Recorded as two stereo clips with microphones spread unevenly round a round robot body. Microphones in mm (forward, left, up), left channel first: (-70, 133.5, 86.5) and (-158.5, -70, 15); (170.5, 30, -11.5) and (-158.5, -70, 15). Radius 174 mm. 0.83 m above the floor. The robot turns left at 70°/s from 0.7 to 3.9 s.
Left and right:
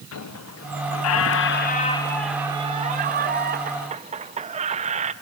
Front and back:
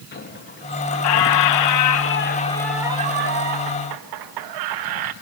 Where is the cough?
I don't hear a cough.